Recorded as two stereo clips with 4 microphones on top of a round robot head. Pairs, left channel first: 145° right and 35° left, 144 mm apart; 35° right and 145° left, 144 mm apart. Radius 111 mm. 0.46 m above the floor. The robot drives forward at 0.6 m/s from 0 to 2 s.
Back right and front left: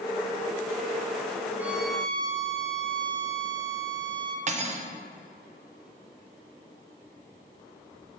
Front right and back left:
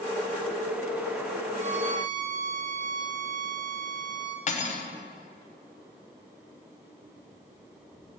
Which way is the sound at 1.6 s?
110° left.